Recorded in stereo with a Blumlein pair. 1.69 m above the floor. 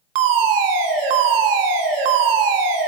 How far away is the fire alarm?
About 1.3 m.